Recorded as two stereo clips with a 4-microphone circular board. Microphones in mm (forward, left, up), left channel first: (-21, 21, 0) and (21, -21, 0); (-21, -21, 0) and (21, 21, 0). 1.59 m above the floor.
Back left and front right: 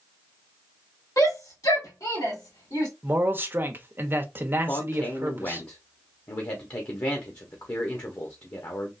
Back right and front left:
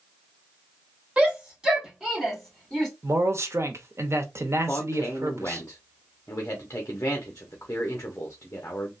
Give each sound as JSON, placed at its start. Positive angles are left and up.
{"t": 1.2, "sound": "a shout", "azimuth_deg": 115, "distance_m": 1.7}
{"t": 3.0, "sound": "a man speaking", "azimuth_deg": 5, "distance_m": 0.8}
{"t": 4.7, "sound": "a man speaking", "azimuth_deg": 165, "distance_m": 0.8}